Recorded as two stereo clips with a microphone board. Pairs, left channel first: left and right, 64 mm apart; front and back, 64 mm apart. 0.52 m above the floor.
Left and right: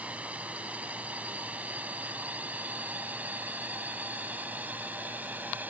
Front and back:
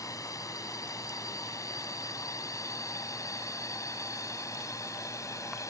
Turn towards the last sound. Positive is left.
turn(degrees=-30)